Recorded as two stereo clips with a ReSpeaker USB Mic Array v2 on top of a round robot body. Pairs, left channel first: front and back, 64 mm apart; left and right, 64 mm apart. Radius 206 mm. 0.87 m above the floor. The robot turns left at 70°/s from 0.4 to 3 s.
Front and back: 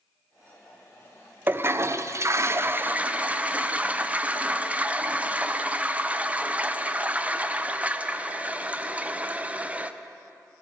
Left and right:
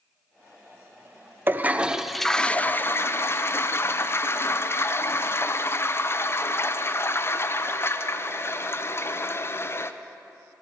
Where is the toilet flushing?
130° right, 0.7 m; by 9.9 s 120° left, 0.7 m.